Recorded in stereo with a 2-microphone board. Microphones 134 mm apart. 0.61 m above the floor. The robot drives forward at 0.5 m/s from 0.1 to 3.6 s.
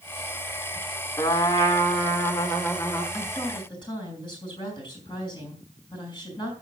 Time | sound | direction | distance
1.2 | a trumpet | 25° left (ahead or behind) | 2 m
3.1 | a woman speaking | 35° left (ahead or behind) | 5 m